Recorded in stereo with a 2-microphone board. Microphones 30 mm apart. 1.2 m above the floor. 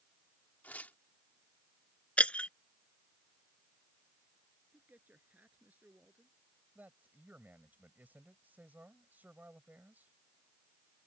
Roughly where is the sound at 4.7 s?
Right.